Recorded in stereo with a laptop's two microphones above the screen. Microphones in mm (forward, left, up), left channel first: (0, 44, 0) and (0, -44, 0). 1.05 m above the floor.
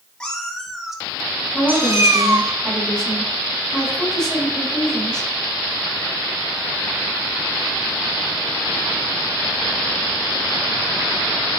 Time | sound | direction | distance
0.2 | a cat meowing | 10° left (ahead or behind) | 2.5 m
1.5 | a woman speaking | 10° left (ahead or behind) | 5 m